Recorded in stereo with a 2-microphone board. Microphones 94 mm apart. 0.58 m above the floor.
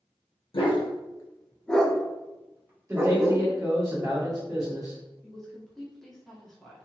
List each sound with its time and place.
0.5 s a dog barking: 65° left (ahead or behind), 0.7 m; by 3.5 s 30° right (ahead or behind), 1.3 m
2.9 s a man speaking: 35° right (ahead or behind), 1.6 m
5.2 s a woman speaking: 5° left (ahead or behind), 1.0 m